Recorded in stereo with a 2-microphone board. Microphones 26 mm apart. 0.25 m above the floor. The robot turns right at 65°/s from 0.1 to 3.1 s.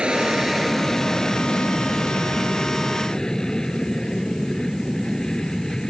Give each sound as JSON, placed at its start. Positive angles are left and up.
{"t": 0.0, "sound": "an aircraft", "azimuth_deg": -40}